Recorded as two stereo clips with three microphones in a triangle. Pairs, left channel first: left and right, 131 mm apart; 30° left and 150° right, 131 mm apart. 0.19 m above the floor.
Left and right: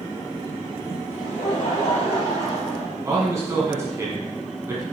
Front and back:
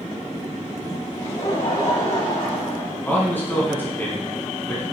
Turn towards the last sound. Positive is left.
turn(degrees=-35)